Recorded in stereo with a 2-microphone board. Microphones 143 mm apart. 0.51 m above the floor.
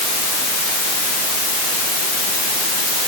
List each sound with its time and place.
Only background noise.